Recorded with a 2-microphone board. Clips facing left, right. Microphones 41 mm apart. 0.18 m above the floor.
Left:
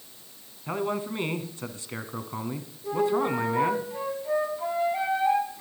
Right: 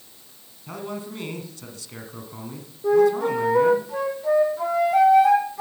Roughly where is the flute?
Right.